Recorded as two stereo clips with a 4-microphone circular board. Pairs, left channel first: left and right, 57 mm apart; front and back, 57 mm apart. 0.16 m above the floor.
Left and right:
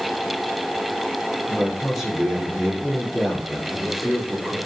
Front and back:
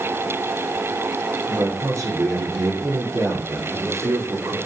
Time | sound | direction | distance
1.5 | a man speaking | 175° right | 6.5 m